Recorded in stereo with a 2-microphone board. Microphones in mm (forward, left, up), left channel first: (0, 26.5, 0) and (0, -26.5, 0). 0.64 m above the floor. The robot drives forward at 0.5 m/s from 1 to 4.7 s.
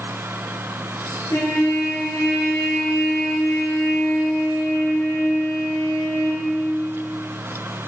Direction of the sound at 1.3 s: 90° left.